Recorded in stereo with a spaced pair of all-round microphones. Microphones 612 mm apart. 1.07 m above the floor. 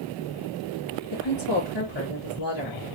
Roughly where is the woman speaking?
Left.